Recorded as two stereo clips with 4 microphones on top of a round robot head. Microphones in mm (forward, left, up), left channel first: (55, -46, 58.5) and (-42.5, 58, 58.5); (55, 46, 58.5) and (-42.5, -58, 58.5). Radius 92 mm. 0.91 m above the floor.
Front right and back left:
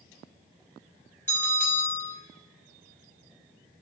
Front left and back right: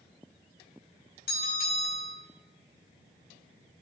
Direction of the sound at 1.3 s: 30° left.